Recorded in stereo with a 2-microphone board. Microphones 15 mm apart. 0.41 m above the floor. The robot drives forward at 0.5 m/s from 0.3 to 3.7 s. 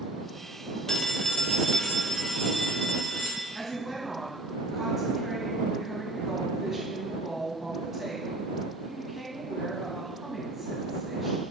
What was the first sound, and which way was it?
A phone ringing, 30° left (ahead or behind).